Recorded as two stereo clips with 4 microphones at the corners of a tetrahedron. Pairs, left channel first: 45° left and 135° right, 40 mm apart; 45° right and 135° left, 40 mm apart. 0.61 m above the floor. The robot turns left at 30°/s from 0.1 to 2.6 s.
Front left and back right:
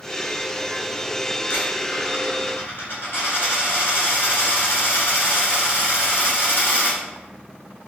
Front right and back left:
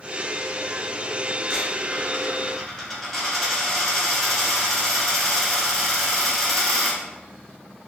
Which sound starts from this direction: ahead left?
A dropped coin, at 1.5 s.